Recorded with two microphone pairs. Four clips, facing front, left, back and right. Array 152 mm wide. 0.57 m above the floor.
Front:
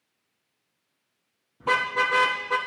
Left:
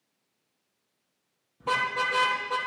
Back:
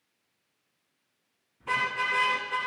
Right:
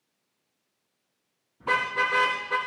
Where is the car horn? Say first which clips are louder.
Right 1 dB, front 5 dB; 20° left, 6 m.